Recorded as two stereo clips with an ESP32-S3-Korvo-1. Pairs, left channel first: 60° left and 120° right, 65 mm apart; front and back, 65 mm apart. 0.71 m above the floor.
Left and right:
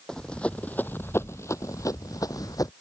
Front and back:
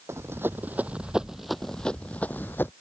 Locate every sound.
0.1 s running footsteps: 140° left; by 2.7 s 55° left